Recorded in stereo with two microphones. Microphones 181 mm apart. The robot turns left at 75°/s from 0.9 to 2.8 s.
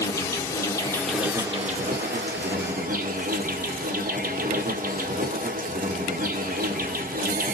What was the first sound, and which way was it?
An insect, 15° left.